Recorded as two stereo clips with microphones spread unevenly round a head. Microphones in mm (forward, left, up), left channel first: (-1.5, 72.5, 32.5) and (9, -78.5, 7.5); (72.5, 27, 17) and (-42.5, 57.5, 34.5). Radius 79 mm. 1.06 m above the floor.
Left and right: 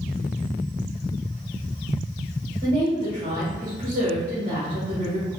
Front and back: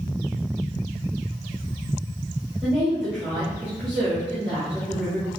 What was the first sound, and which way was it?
A woman speaking, 100° right.